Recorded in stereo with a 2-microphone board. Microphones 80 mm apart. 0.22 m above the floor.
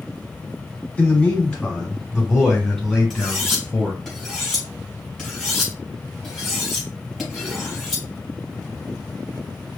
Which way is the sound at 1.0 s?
15° left (ahead or behind).